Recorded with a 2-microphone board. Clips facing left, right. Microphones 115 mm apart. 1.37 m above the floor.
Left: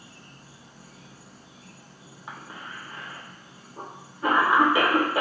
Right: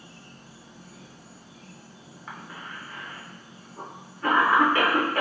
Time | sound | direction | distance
0.0 | an insect | 55° right (ahead or behind) | 1.2 m
2.3 | a cough | 15° left (ahead or behind) | 1.4 m